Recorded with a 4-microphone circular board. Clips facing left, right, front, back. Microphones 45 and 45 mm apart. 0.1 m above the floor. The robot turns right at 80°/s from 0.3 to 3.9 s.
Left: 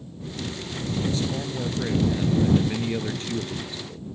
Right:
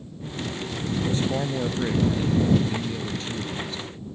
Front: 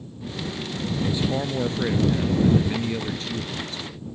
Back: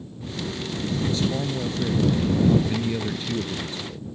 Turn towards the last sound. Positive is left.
turn(degrees=150)